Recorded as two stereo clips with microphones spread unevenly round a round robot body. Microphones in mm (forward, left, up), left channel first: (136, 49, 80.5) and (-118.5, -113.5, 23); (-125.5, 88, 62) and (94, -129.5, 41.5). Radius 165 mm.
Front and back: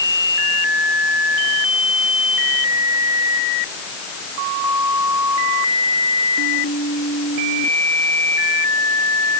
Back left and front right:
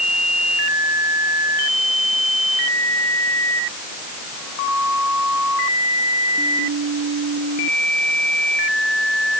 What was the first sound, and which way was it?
Only background noise.